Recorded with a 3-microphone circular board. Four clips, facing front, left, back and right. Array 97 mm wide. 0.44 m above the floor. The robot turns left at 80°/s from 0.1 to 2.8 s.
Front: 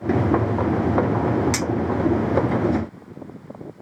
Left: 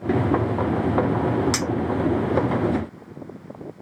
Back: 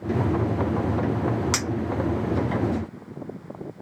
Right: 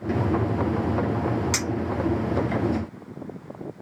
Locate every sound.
1.5 s a clink: 160° left, 1.8 m; by 2.6 s 75° left, 1.8 m